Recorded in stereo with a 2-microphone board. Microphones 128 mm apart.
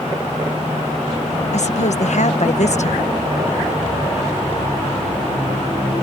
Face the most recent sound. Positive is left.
turn(degrees=65)  # may be behind; listen again after turning